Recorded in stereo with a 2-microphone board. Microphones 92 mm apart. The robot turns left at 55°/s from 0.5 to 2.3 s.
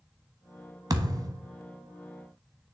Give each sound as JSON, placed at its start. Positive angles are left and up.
{"t": 0.9, "sound": "a thud", "side_deg": -40, "distance_m": 0.8}